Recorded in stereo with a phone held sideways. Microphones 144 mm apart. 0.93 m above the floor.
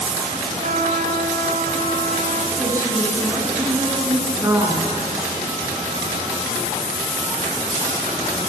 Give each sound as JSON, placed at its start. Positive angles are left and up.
{"t": 0.6, "sound": "a trumpet", "side_deg": -85, "distance_m": 4.0}
{"t": 2.6, "sound": "a woman speaking", "side_deg": -20, "distance_m": 8.0}